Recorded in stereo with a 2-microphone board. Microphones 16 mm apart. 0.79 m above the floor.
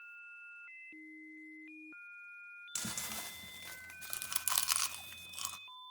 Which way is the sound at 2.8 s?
30° right (ahead or behind).